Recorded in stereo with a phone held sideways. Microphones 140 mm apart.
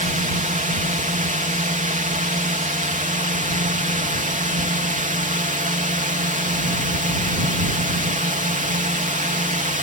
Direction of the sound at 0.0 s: 65° right (ahead or behind).